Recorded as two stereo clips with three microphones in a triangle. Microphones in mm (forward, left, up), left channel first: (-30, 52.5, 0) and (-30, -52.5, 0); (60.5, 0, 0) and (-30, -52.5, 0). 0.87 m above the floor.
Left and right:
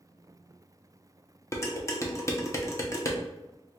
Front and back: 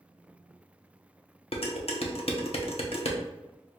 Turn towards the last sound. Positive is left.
turn(degrees=30)